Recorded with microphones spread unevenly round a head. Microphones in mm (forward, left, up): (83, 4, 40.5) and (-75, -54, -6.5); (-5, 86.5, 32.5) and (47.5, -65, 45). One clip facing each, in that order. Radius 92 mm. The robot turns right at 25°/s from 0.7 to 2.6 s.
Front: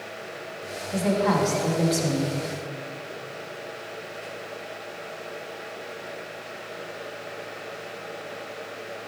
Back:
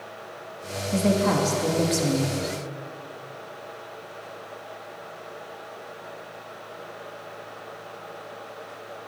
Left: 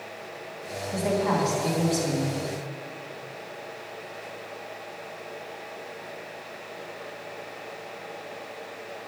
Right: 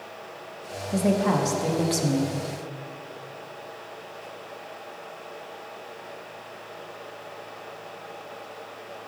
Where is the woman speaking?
125° right, 1.3 m; by 2.4 s 90° right, 1.3 m.